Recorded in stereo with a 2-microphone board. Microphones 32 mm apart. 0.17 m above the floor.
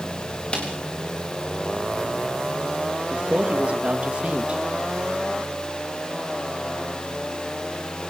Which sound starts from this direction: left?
A snare drum, at 0.5 s.